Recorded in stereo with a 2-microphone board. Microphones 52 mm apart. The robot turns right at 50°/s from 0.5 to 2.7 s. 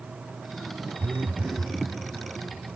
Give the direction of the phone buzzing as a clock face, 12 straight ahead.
2 o'clock.